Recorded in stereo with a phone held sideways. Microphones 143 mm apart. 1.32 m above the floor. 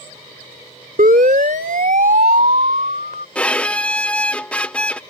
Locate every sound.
1.0 s a siren: 80° right; by 3.2 s 70° right (ahead or behind)
3.4 s a violin: 10° left (ahead or behind)